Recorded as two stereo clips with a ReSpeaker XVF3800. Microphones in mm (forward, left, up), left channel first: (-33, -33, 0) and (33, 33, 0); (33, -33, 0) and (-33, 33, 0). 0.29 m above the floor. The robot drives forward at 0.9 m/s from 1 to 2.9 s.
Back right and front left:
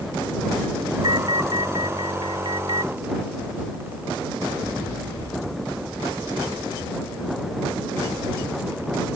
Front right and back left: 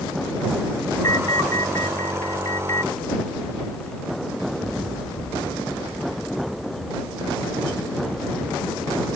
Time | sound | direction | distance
1.0 | an alarm | 10° left | ?